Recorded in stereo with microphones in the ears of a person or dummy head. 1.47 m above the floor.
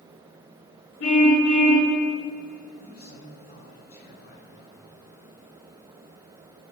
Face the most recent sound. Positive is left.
turn(degrees=45)  # may be behind; listen again after turning